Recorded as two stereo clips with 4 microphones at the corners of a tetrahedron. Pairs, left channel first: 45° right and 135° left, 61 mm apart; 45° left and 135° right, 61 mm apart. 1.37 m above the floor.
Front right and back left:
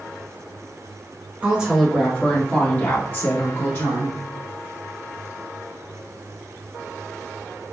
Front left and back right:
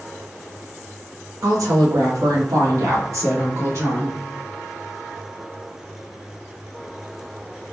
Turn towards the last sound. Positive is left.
turn(degrees=-90)